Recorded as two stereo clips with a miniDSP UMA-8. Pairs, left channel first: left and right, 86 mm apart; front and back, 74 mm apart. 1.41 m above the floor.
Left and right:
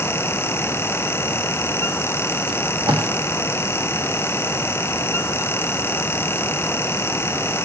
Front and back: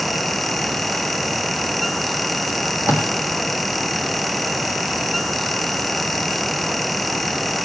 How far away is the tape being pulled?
About 1.5 m.